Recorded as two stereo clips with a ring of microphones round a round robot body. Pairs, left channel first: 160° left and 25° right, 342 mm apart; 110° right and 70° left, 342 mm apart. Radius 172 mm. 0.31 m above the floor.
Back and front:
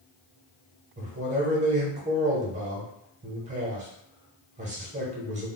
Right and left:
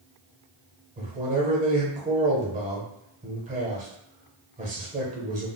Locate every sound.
1.0 s a man speaking: 25° left, 1.0 m